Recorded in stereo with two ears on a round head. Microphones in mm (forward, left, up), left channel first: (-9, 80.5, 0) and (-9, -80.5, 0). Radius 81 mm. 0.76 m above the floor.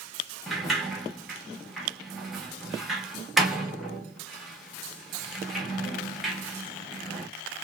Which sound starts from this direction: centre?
A sliding door, at 0.5 s.